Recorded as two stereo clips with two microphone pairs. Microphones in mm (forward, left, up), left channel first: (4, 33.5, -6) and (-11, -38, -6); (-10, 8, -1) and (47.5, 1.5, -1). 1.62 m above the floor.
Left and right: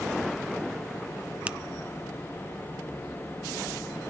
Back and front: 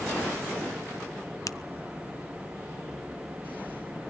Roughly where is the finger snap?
Behind.